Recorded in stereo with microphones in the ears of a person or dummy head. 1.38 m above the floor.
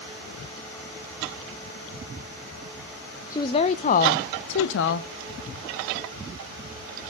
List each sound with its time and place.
3.3 s a woman speaking: 25° left (ahead or behind), 0.7 m; by 5.1 s 80° left, 1.1 m